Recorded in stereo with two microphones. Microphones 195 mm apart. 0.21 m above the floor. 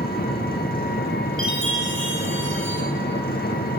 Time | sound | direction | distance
0.0 | an engine running | 50° left (ahead or behind) | 3.5 m
1.4 | a chime | 85° right | 6.5 m